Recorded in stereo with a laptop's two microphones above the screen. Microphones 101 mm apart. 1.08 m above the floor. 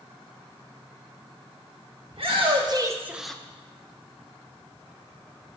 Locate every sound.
2.1 s a shout: 65° right (ahead or behind), 1.5 m; by 3.4 s 10° left (ahead or behind), 1.0 m